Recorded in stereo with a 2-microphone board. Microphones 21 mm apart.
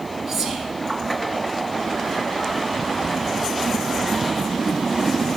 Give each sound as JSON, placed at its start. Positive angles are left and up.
{"t": 0.3, "sound": "whispering", "side_deg": -5, "distance_m": 1.7}